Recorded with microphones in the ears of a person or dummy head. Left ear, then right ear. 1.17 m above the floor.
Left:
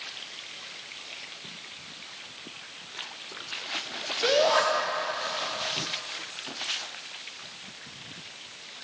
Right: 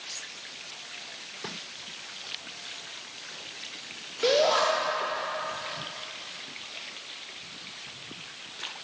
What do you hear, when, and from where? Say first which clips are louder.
4.2 s a shout: even; 15° left (ahead or behind), 3 m